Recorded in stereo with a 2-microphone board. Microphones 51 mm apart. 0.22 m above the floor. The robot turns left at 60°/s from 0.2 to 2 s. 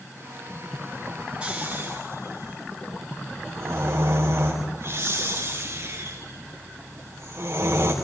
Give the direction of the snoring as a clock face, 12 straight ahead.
1 o'clock.